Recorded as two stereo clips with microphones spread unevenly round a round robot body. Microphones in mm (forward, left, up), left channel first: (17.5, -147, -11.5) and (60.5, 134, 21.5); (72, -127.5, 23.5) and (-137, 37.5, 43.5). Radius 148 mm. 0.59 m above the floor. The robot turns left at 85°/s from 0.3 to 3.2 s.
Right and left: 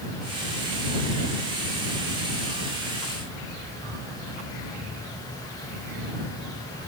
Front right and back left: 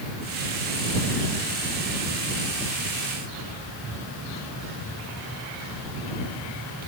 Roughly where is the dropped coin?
No dropped coin in this recording.